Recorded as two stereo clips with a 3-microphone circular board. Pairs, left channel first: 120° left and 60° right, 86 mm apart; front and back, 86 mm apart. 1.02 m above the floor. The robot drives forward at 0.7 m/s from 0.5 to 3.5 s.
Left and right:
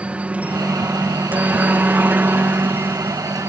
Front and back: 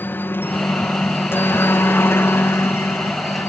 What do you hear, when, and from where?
0.0 s a helicopter: 10° right; by 3.5 s 20° right